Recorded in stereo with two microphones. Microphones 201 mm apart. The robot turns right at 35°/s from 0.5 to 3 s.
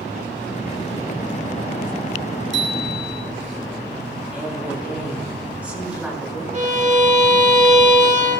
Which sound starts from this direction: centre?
A woman speaking, at 4.3 s.